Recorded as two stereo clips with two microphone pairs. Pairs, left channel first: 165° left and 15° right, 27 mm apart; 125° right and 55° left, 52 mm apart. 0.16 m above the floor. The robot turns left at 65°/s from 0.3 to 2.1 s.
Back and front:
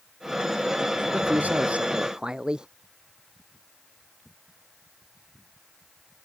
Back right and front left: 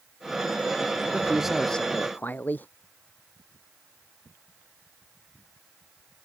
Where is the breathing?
No breathing in this recording.